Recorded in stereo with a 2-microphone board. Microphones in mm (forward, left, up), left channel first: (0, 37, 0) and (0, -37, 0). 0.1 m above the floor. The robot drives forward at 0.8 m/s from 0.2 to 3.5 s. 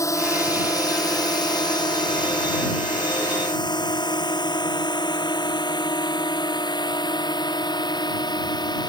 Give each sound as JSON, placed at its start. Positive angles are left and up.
{"t": 0.0, "sound": "a drone", "side_deg": 45}